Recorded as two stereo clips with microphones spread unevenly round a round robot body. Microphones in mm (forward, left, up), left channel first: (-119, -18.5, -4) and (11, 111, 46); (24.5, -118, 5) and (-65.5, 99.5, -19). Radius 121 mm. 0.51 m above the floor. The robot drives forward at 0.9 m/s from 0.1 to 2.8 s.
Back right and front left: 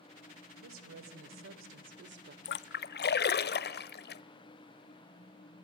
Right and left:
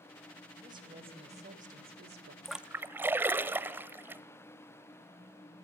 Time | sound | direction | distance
0.6 | a woman speaking | 40° left | 2.5 m
2.5 | a splash | 155° right | 0.5 m